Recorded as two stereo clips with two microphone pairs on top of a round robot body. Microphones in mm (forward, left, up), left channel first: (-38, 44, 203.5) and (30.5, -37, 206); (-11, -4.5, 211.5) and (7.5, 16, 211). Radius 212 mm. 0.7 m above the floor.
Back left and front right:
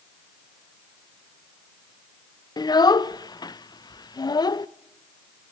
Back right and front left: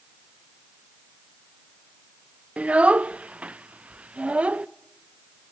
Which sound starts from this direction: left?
A child speaking, at 2.6 s.